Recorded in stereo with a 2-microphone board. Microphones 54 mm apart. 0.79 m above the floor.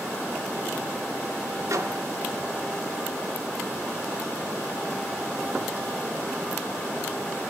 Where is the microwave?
70° right (ahead or behind), 1.8 m.